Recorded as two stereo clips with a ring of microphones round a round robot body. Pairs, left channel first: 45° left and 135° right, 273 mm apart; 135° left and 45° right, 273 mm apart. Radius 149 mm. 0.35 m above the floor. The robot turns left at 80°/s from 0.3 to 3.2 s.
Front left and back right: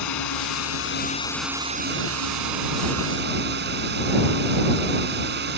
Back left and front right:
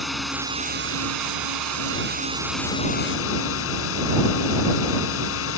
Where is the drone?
45° left; by 5.6 s 175° left.